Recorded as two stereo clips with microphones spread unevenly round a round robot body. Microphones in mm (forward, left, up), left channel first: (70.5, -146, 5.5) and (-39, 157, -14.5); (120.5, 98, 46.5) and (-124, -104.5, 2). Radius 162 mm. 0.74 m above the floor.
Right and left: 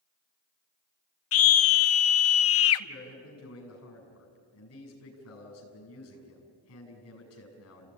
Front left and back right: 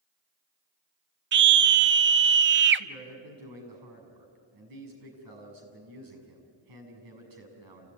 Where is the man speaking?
120° right, 6.5 m.